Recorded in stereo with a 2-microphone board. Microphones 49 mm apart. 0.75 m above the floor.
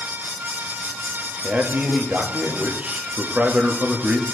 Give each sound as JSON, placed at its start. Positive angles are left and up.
{"t": 1.4, "sound": "a man speaking", "side_deg": -30, "distance_m": 1.0}